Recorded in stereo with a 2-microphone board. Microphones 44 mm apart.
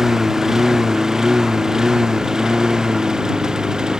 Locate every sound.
0.0 s a lawn mower: 15° right (ahead or behind); by 4.0 s 20° right (ahead or behind)